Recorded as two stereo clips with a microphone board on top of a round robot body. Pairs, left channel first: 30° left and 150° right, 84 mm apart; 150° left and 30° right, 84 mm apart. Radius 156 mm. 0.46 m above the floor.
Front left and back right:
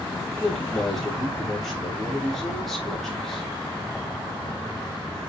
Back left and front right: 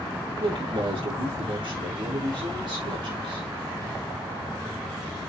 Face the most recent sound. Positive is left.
turn(degrees=-60)